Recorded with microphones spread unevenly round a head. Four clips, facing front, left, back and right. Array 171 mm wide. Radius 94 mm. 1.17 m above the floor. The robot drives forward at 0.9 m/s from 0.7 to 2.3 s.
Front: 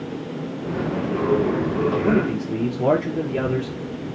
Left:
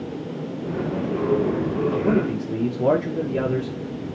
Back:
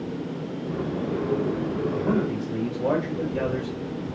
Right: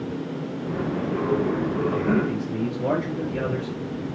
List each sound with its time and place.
2.0 s a man speaking: 20° left, 1.1 m; by 4.1 s 25° left, 0.8 m